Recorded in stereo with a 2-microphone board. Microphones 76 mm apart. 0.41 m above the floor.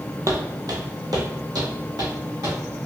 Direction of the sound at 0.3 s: 50° right (ahead or behind).